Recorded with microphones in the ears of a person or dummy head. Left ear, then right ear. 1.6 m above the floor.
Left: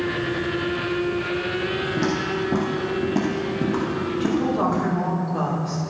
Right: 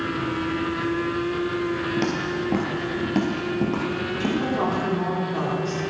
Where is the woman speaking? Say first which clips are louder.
Left 2 dB; 30° right (ahead or behind), 3.5 m.